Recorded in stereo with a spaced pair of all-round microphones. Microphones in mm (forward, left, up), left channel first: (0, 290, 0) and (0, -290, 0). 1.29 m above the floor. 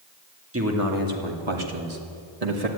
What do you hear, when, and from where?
0.5 s a man speaking: 20° right (ahead or behind), 2.5 m; by 2.7 s 85° right, 2.5 m